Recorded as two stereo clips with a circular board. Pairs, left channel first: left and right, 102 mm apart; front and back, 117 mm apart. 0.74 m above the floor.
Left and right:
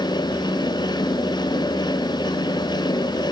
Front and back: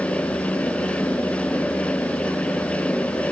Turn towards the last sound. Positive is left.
No sound to turn to.